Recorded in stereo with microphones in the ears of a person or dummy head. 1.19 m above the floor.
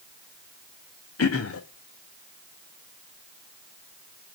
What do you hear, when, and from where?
1.2 s throat clearing: 80° left, 1.7 m